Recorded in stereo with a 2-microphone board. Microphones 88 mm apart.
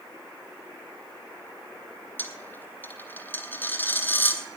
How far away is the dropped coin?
About 1.4 m.